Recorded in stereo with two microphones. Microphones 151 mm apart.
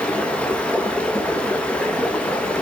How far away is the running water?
About 1.2 m.